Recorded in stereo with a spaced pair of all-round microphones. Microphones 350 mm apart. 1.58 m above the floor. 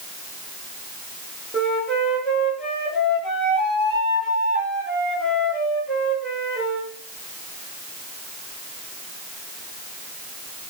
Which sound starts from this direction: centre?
A flute, at 1.5 s.